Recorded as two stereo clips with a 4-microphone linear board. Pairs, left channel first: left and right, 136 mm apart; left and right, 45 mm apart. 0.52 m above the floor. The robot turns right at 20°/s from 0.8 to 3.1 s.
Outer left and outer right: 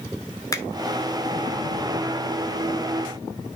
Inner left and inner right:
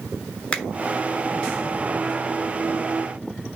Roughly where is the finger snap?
Left.